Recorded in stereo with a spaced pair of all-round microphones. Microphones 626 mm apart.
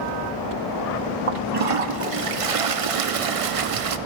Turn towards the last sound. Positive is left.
turn(degrees=-60)  # may be behind; listen again after turning